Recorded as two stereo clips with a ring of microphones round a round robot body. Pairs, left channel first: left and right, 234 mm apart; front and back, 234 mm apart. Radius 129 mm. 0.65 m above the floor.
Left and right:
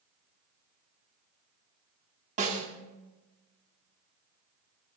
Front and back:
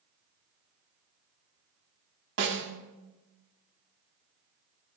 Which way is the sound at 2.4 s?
145° right.